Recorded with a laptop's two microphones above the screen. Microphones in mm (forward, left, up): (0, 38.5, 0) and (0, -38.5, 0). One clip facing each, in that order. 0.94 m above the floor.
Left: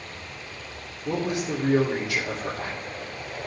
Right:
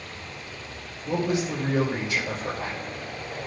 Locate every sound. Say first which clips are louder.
1.1 s a man speaking: right 1 dB; 75° left (ahead or behind), 3 m